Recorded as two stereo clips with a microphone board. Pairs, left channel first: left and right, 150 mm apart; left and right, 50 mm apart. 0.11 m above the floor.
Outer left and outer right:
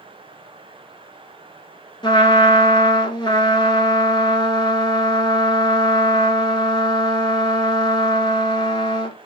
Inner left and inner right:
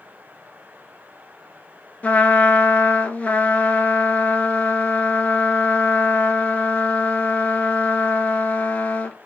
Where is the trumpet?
30° left (ahead or behind), 0.7 m.